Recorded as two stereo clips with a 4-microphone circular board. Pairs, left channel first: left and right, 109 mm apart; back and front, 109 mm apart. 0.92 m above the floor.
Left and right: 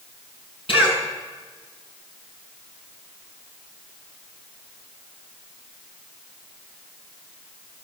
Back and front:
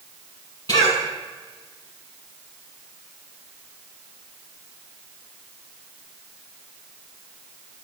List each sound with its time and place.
0.7 s a cough: 125° left, 8 m